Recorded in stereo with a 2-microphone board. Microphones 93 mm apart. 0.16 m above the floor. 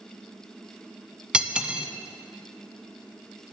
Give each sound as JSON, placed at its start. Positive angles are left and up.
{"t": 1.3, "sound": "cutlery clinking", "side_deg": -10, "distance_m": 0.6}